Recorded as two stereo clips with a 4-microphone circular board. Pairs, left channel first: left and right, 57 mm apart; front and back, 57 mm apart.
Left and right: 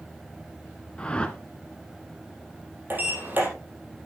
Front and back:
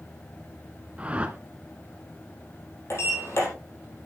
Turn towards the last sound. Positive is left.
turn(degrees=-40)